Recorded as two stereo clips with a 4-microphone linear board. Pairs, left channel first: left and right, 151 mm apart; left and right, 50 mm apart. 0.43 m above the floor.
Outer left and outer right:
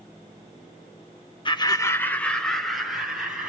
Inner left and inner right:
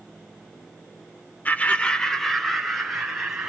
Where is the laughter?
35° left (ahead or behind), 0.8 m; by 3.5 s 5° right (ahead or behind), 2.5 m.